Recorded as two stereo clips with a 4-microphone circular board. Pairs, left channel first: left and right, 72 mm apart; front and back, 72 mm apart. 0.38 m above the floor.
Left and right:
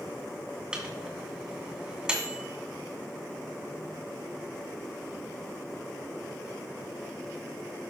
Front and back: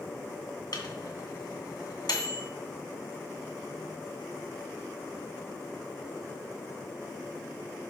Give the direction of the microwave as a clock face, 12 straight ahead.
12 o'clock.